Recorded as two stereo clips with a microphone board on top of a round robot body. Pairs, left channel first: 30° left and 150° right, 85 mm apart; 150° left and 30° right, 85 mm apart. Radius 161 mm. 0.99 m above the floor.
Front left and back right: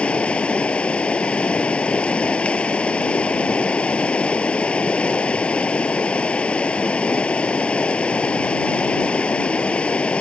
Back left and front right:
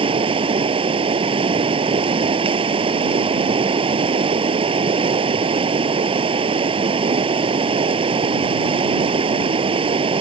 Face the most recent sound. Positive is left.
turn(degrees=-45)